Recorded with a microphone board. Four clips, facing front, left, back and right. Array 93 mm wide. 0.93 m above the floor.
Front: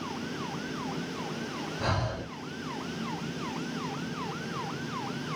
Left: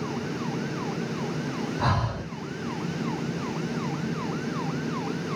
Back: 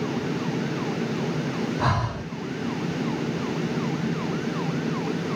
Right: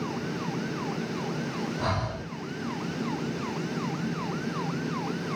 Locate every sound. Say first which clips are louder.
1.8 s breathing: left 6 dB, back 2 dB; 140° left, 2.5 m